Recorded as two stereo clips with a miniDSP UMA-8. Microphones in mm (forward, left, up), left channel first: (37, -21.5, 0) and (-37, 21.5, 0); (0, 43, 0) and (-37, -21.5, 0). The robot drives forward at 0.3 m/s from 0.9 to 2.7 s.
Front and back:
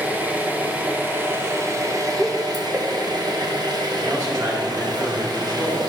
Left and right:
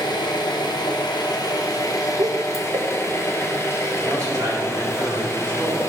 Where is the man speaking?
170° right, 3.5 m.